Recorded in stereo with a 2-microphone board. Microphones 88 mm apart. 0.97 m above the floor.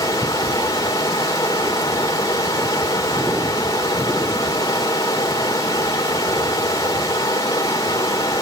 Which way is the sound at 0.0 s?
40° left (ahead or behind).